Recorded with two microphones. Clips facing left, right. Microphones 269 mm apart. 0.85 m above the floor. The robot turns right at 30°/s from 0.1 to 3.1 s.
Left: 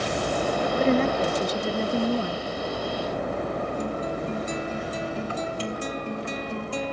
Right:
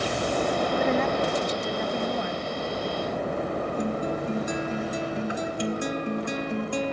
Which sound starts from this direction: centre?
A guitar, at 3.8 s.